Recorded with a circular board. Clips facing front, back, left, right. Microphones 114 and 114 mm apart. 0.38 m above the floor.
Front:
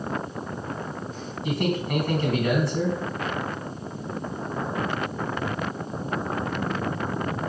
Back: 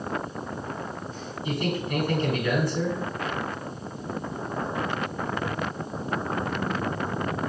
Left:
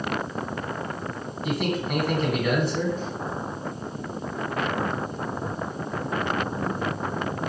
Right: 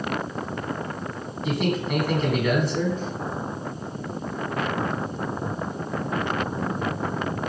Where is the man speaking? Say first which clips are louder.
Front 3 dB, right 2 dB; straight ahead, 3 m.